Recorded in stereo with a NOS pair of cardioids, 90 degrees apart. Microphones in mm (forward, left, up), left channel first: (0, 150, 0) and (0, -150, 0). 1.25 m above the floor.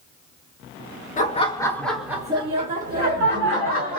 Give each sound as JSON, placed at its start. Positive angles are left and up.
{"t": 1.2, "sound": "laughter", "azimuth_deg": 25, "distance_m": 1.0}